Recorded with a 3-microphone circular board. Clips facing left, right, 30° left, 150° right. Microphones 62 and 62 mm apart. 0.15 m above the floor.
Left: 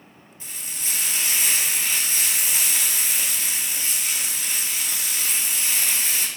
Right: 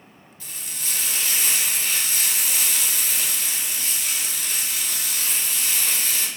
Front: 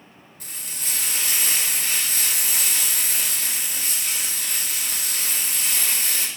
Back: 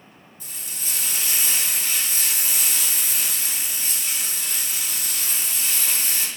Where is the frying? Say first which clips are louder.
Even, front 1 dB; 25° left, 1.1 m.